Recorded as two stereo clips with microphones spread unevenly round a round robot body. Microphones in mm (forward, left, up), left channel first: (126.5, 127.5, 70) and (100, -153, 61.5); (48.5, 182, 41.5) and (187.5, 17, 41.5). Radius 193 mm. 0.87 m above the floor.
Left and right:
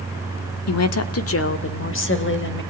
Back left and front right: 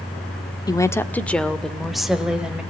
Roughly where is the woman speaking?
Ahead left.